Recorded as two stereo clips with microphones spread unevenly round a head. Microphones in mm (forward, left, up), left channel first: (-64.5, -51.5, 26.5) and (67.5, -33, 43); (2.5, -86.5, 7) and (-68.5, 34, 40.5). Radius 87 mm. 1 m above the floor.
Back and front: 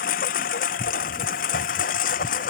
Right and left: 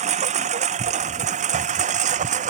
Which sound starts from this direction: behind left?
A lawn mower, at 0.0 s.